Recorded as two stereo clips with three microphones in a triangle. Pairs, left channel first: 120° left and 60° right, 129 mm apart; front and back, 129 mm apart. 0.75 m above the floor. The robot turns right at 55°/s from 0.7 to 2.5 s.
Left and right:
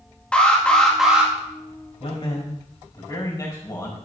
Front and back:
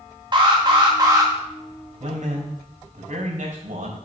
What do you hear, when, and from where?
0.3 s an alarm: 165° right, 1.8 m; by 1.3 s 130° right, 1.8 m
2.0 s a man speaking: 160° left, 4.5 m; by 4.0 s 175° right, 4.5 m